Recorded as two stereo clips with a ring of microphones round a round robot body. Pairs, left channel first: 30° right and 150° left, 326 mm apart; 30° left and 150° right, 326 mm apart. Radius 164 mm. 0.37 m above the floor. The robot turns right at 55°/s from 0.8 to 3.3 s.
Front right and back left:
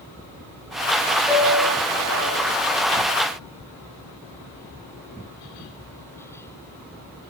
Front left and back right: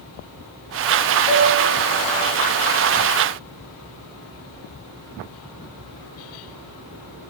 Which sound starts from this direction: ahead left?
A piano, at 1.3 s.